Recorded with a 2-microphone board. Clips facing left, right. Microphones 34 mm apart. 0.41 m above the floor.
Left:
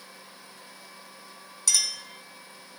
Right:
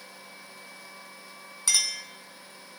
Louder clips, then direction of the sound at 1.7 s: Right 1 dB; 20° right (ahead or behind).